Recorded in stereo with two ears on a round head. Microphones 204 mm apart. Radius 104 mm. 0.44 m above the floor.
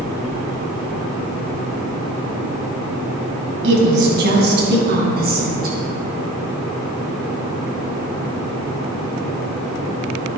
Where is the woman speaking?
50° right (ahead or behind), 3 m; by 5.8 s 40° right (ahead or behind), 3.5 m.